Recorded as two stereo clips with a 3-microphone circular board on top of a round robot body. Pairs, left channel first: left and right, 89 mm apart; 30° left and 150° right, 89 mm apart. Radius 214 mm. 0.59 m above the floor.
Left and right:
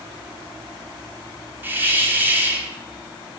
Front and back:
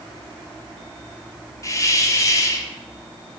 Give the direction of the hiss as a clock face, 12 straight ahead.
1 o'clock.